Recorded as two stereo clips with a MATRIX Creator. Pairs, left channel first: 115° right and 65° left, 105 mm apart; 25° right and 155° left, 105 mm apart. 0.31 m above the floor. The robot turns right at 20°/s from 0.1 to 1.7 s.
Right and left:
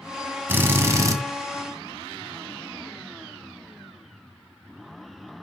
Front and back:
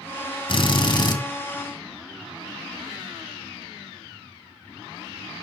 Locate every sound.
0.5 s a drill: straight ahead, 2 m; by 1.2 s 15° left, 2 m